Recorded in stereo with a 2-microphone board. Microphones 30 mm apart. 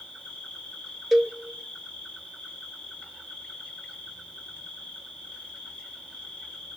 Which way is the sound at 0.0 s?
45° left (ahead or behind).